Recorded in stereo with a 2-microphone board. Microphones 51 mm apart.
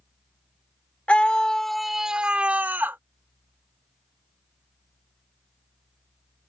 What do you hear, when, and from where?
1.1 s a scream: 25° left (ahead or behind); by 3.0 s 45° right (ahead or behind)